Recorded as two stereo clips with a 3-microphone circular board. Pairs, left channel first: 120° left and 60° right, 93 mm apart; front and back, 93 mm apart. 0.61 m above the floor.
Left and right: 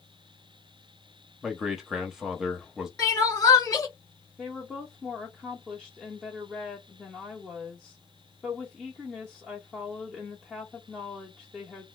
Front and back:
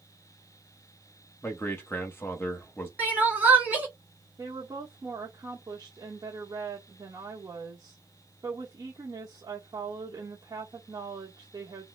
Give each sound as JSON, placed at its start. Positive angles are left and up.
{"t": 1.4, "sound": "a man speaking", "azimuth_deg": 20, "distance_m": 0.8}
{"t": 3.0, "sound": "crying", "azimuth_deg": 125, "distance_m": 1.4}
{"t": 4.4, "sound": "a woman speaking", "azimuth_deg": -145, "distance_m": 1.0}